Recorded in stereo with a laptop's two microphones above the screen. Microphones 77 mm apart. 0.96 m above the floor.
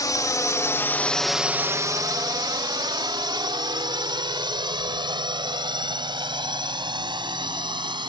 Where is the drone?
50° left (ahead or behind); by 8.1 s 70° right (ahead or behind).